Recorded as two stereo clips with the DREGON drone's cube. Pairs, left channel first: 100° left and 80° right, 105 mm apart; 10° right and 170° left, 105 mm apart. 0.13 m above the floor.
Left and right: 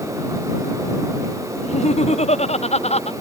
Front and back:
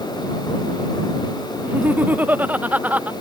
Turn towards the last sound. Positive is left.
turn(degrees=95)